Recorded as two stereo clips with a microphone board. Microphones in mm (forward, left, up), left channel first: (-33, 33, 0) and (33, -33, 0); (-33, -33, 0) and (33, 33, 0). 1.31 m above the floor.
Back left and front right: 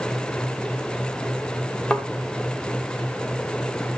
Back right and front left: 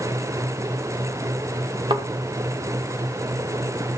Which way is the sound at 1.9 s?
55° left.